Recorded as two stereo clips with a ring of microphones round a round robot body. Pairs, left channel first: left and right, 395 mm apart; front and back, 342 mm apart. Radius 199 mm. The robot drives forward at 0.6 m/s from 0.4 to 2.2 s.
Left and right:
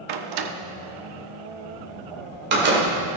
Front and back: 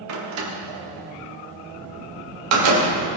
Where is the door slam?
125° right, 0.8 m; by 2.9 s 155° right, 1.7 m.